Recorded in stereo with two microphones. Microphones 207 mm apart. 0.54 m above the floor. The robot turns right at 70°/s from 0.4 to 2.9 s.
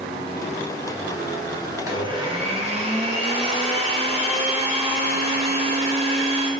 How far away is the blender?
About 0.6 m.